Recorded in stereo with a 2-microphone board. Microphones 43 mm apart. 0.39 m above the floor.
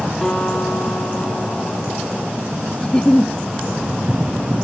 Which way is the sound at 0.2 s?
10° left (ahead or behind).